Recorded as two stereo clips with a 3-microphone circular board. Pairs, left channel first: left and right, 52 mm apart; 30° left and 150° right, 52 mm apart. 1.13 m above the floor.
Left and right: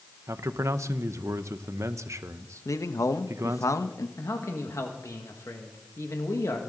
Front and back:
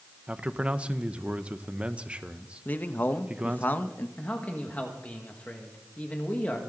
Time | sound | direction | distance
0.3 | a man speaking | 85° right | 0.8 m
2.6 | a man speaking | 85° left | 0.8 m
4.2 | a man speaking | 90° left | 1.6 m